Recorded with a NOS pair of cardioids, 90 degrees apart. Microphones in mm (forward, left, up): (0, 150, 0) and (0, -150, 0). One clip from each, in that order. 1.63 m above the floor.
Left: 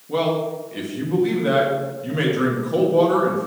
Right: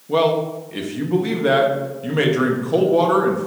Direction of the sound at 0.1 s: 30° right.